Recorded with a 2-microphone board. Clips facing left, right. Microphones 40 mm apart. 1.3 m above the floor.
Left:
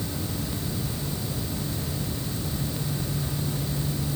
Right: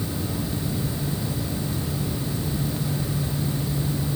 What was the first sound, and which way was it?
Only background noise.